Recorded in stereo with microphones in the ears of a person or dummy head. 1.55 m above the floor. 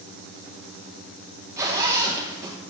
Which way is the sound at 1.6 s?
20° right (ahead or behind).